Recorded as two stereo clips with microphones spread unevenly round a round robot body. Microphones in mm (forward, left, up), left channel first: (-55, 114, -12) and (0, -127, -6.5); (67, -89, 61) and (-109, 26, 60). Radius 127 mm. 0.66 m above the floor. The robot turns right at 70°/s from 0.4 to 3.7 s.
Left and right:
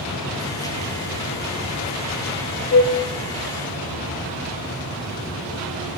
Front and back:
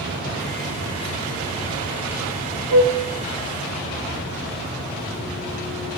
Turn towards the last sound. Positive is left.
turn(degrees=-140)